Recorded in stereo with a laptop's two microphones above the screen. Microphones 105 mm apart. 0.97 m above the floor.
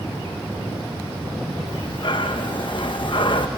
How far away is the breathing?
About 1.0 m.